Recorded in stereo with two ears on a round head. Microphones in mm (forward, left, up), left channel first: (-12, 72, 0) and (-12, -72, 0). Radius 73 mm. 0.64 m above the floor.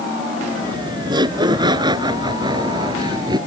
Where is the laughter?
25° right (ahead or behind).